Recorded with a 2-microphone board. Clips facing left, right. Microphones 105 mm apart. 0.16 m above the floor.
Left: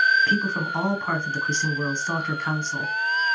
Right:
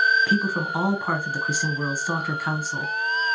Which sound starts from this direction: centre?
A woman speaking, at 0.3 s.